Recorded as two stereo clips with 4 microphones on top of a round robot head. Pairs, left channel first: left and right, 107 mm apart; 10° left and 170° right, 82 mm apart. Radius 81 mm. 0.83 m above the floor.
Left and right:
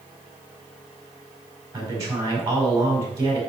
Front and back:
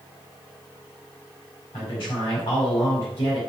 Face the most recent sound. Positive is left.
turn(degrees=-30)